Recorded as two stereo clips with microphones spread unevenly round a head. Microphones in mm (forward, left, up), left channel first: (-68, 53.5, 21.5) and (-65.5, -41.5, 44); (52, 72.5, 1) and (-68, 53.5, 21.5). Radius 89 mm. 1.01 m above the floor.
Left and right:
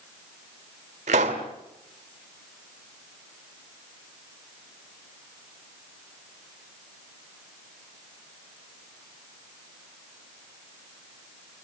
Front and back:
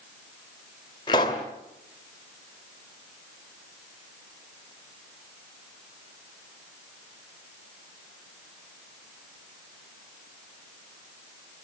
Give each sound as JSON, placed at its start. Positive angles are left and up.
{"t": 1.1, "sound": "a pop", "azimuth_deg": -60, "distance_m": 1.8}